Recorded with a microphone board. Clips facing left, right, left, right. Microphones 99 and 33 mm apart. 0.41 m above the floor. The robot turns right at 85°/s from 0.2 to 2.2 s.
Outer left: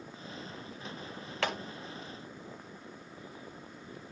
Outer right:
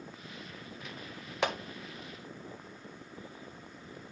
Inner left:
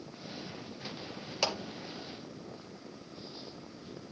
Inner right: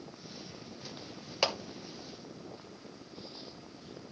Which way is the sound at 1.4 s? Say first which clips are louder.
Outer right 2 dB, inner right 2 dB; 20° right (ahead or behind).